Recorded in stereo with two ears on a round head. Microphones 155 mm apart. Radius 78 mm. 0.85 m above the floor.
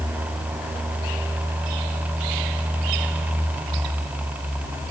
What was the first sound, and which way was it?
Only background noise.